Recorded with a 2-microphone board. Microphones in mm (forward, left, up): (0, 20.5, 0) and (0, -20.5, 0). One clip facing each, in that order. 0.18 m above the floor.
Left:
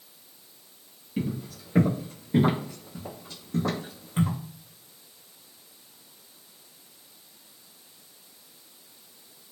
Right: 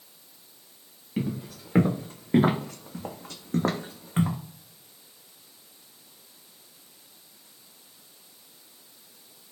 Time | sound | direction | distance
1.2 | footsteps | 45° right (ahead or behind) | 1.2 m